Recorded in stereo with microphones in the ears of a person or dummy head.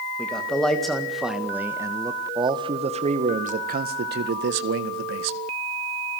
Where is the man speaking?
15° left (ahead or behind), 2.5 m; by 5.4 s 65° right (ahead or behind), 1.9 m.